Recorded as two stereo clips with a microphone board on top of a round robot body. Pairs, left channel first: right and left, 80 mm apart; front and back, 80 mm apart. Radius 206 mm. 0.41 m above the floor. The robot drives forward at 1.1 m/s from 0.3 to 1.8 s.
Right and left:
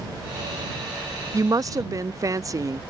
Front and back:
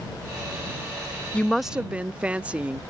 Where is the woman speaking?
65° left; by 2.8 s 110° left.